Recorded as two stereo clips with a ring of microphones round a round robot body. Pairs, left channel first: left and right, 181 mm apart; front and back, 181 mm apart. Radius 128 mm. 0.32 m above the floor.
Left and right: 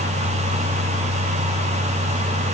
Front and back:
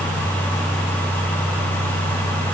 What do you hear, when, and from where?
Only background noise.